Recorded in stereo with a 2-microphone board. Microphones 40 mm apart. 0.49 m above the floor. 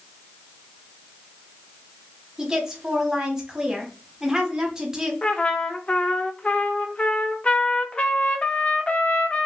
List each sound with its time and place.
2.4 s a woman speaking: 15° right (ahead or behind), 1.0 m
5.2 s a trumpet: 30° left (ahead or behind), 0.5 m